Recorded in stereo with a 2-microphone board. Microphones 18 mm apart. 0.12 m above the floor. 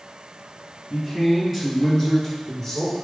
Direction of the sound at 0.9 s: 20° right (ahead or behind).